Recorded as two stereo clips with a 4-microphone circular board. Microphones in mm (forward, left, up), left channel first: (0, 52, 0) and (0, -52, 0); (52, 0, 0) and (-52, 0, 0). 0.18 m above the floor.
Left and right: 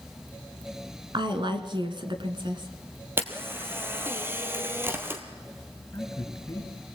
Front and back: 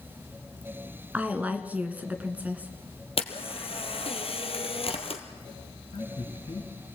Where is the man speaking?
30° left, 3.5 m.